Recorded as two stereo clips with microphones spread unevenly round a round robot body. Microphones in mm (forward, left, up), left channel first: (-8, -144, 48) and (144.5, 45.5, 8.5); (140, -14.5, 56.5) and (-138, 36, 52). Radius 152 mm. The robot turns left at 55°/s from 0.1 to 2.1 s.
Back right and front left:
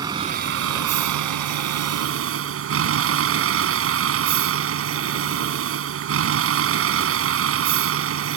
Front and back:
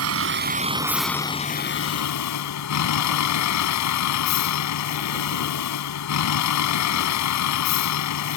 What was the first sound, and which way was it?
A vehicle, 130° left.